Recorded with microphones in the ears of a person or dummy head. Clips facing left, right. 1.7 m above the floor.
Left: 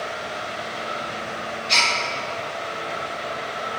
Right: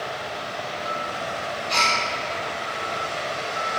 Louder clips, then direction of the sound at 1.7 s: Right 1 dB; 35° left (ahead or behind).